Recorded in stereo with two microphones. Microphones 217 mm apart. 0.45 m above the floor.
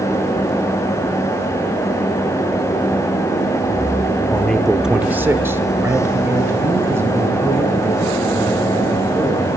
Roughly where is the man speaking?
Centre.